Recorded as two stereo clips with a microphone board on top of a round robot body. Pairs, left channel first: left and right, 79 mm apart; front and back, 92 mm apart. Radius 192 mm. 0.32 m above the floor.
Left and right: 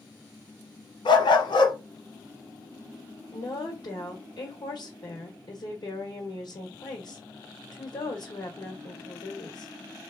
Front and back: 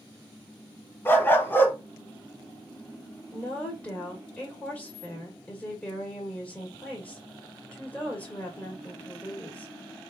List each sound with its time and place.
1.1 s a dog barking: 70° left, 1.0 m
3.3 s a woman speaking: 75° left, 1.8 m